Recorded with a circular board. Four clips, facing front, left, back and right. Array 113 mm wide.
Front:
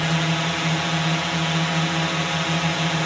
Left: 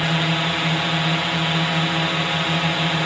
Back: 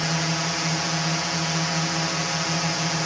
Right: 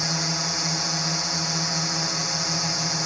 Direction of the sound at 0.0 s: 70° left.